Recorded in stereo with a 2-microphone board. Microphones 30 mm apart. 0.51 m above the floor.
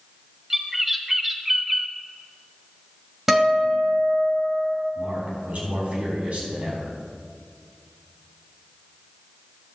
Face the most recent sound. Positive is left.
turn(degrees=-55)  # may be behind; listen again after turning